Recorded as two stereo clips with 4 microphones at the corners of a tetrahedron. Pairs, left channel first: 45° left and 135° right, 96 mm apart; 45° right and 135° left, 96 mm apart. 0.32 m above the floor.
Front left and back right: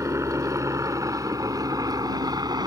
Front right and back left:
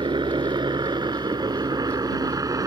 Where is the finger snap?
I don't hear a finger snap.